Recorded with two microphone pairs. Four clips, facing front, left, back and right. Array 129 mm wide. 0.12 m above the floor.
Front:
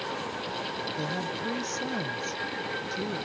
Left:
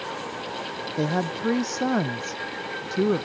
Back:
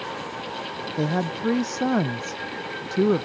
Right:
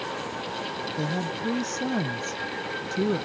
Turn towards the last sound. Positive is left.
turn(degrees=155)